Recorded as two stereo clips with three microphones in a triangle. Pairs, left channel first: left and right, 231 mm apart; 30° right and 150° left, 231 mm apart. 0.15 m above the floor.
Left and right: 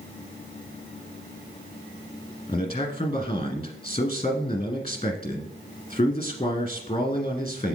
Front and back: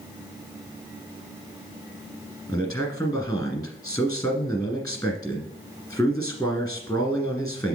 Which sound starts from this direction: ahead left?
A man speaking, at 2.5 s.